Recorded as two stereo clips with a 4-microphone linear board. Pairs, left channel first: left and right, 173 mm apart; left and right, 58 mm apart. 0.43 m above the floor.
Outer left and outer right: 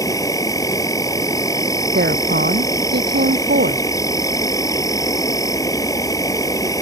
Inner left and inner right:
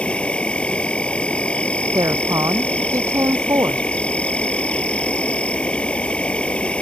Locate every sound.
0.0 s an insect: 20° left (ahead or behind)
1.9 s a woman speaking: 75° right (ahead or behind)